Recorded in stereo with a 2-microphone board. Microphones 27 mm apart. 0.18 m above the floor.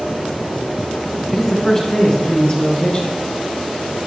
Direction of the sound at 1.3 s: 5° left (ahead or behind).